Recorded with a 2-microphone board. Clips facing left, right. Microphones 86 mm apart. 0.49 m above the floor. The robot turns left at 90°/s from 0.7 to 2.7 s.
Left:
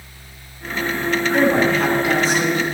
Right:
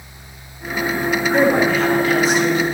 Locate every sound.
1.3 s a woman speaking: 140° right, 1.3 m; by 2.6 s 105° left, 1.3 m